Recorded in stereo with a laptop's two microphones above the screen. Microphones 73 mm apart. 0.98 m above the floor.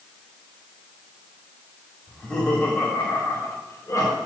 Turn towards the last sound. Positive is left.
turn(degrees=45)  # may be behind; listen again after turning